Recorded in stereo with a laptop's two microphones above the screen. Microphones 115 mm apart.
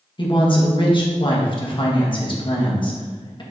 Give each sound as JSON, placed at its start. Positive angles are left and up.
{"t": 0.2, "sound": "a woman speaking", "side_deg": 45, "distance_m": 1.1}